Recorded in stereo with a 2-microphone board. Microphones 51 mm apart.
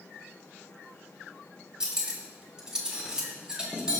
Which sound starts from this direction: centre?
Cutlery clinking, at 1.8 s.